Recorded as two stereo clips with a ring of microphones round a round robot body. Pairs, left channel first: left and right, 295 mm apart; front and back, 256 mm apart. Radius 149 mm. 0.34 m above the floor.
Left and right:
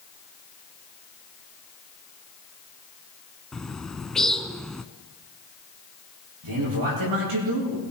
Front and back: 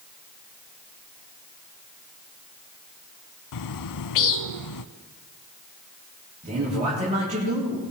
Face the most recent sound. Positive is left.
turn(degrees=-110)